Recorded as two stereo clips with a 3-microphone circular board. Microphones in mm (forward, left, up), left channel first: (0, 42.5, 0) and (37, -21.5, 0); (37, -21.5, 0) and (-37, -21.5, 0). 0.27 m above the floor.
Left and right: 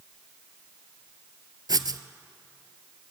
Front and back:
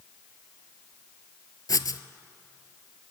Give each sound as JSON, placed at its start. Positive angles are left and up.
{"t": 1.7, "sound": "writing", "azimuth_deg": -35, "distance_m": 0.7}